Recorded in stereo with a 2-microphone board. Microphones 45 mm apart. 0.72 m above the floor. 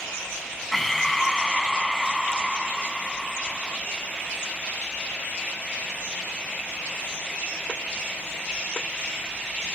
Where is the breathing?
5° left (ahead or behind).